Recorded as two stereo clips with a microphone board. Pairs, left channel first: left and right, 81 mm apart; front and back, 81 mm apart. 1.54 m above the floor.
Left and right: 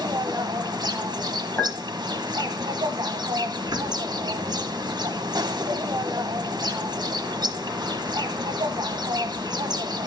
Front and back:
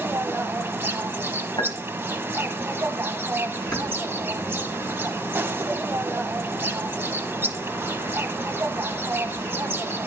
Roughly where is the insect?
Behind right.